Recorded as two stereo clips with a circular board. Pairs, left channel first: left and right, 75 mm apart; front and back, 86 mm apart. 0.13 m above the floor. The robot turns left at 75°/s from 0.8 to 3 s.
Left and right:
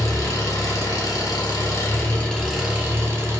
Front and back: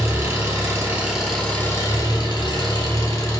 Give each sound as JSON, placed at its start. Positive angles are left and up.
{"t": 0.0, "sound": "an engine running", "azimuth_deg": 130, "distance_m": 2.0}